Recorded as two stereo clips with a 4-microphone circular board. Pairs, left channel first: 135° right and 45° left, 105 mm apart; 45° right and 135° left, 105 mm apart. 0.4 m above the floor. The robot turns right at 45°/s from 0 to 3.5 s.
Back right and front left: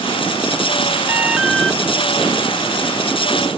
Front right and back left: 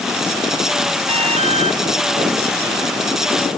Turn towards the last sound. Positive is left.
turn(degrees=-135)